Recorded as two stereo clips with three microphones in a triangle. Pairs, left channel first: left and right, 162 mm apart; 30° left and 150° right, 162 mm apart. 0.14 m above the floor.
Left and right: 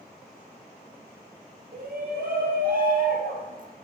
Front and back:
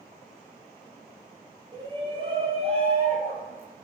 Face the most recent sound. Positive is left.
turn(degrees=-115)